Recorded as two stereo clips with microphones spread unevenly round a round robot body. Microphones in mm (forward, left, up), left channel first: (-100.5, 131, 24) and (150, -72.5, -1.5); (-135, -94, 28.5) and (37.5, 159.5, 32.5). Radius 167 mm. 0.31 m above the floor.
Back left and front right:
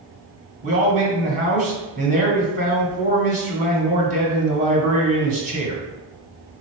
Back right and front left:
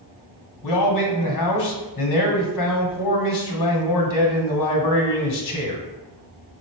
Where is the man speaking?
105° right, 2.0 m.